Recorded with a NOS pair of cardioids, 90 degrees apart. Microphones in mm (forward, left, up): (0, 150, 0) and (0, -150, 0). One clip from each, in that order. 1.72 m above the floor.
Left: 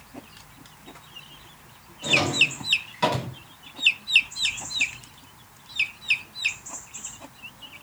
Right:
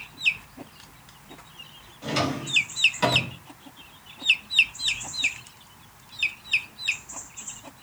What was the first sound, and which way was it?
A drawer, 15° right.